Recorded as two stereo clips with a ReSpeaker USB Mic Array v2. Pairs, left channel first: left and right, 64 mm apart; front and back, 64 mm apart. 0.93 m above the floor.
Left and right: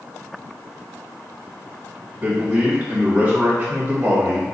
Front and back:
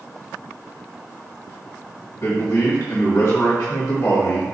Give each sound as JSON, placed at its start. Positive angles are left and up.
{"t": 2.2, "sound": "a man speaking", "azimuth_deg": -25, "distance_m": 1.5}